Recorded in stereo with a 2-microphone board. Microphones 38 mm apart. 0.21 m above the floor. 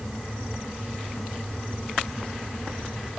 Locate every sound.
Only background noise.